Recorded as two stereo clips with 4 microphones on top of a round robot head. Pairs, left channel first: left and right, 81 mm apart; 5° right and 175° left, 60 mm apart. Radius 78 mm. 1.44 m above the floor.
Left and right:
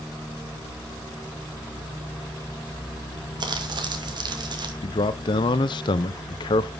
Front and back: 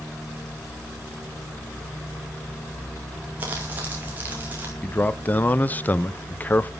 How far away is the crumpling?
About 2 m.